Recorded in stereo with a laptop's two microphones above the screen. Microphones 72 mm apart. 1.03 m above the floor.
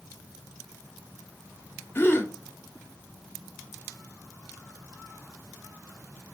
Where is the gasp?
30° left (ahead or behind), 0.7 m.